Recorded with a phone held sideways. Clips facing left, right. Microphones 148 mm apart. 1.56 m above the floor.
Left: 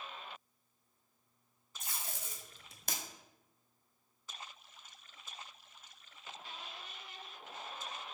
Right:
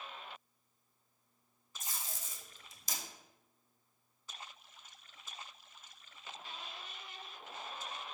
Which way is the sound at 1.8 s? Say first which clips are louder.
Left 1 dB; 60° left (ahead or behind).